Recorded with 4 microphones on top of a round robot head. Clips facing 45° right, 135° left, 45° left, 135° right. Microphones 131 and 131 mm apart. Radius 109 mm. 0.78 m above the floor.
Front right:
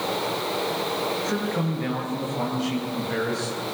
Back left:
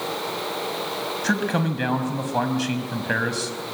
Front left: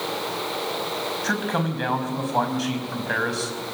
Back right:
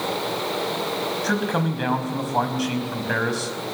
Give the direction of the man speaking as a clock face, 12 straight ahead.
7 o'clock.